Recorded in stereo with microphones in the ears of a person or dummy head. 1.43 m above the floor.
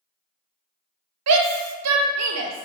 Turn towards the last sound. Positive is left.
turn(degrees=-80)